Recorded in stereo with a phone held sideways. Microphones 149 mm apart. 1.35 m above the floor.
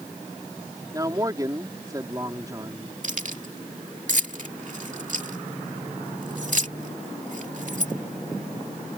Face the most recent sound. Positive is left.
turn(degrees=-60)  # may be behind; listen again after turning